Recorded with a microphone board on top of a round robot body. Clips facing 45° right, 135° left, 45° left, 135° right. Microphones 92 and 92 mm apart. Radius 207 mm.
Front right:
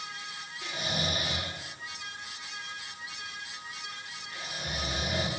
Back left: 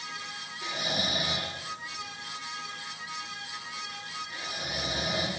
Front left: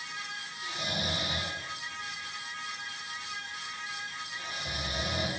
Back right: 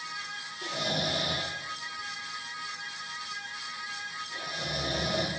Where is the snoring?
140° right, 8.5 m.